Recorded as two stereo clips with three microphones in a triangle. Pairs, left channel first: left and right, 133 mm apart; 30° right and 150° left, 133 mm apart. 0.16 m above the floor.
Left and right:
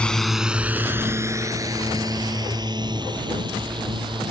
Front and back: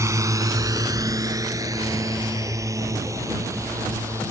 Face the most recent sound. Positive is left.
turn(degrees=-140)